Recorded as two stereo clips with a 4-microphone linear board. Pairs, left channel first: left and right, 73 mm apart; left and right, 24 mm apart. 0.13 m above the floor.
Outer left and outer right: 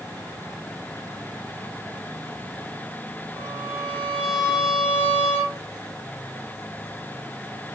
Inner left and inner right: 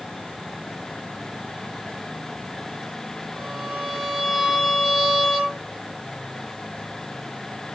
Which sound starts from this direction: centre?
A violin, at 3.4 s.